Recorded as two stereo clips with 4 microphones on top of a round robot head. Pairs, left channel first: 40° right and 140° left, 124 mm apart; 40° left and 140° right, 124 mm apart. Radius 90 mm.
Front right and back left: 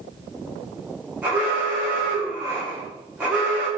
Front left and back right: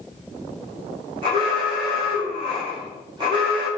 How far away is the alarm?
About 1.3 m.